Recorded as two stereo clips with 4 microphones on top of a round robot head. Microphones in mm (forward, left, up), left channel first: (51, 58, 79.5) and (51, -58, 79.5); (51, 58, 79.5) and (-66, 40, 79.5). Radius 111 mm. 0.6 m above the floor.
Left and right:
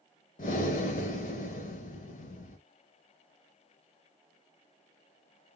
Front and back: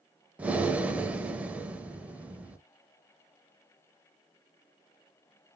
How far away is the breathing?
About 0.5 m.